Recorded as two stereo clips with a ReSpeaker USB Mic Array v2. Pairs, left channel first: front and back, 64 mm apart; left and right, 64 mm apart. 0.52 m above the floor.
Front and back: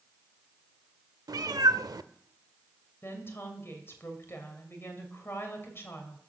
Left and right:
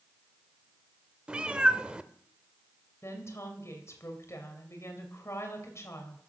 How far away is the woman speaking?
About 2.5 m.